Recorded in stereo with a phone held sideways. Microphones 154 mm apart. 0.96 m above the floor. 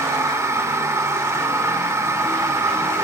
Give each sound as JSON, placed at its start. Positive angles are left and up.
{"t": 0.0, "sound": "a machine running", "side_deg": -20, "distance_m": 0.7}